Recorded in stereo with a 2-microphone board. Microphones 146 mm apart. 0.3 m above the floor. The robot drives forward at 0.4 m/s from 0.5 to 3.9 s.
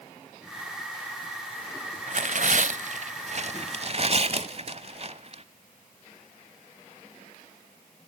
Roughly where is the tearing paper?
Right.